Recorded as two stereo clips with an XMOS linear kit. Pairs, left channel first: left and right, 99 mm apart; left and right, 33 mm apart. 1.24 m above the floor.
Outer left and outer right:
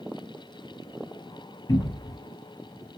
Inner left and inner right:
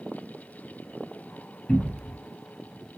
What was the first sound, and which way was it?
A cupboard door, 45° left (ahead or behind).